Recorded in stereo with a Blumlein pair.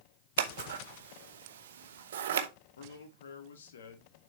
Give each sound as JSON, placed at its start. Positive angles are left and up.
{"t": 0.4, "sound": "scissors", "azimuth_deg": -60, "distance_m": 0.9}
{"t": 2.8, "sound": "a man speaking", "azimuth_deg": 65, "distance_m": 1.5}